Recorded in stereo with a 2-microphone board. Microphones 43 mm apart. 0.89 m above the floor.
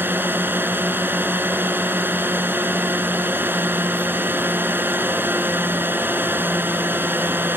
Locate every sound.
0.0 s a drone: 50° right (ahead or behind)